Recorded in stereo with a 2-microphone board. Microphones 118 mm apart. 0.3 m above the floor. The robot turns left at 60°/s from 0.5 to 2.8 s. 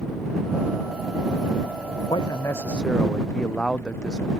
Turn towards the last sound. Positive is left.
turn(degrees=5)